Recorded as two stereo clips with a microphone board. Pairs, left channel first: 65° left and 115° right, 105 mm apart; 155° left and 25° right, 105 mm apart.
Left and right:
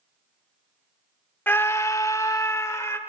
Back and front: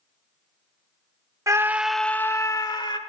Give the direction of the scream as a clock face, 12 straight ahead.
12 o'clock.